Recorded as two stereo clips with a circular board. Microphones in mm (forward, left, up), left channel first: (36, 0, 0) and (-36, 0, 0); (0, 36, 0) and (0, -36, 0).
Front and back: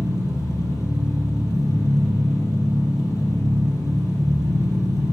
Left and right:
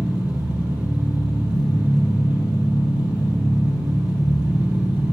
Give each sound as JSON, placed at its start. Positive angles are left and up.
{"t": 0.0, "sound": "an engine running", "azimuth_deg": -20, "distance_m": 1.8}